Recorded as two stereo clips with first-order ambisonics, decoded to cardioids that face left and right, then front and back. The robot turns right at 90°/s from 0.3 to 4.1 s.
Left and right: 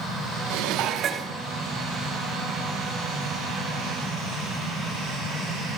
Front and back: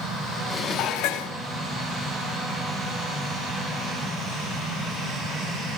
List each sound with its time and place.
0.5 s dishes clattering: 75° right, 1.0 m; by 1.3 s straight ahead, 1.0 m